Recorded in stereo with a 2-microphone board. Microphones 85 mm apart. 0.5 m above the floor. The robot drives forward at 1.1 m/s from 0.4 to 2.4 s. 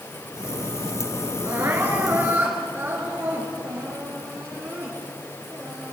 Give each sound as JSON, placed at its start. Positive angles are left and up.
{"t": 1.4, "sound": "crying", "side_deg": -30, "distance_m": 3.5}